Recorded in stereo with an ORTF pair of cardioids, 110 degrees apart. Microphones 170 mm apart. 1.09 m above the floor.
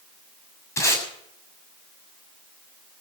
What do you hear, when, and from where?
0.8 s tape being pulled: 15° left, 7 m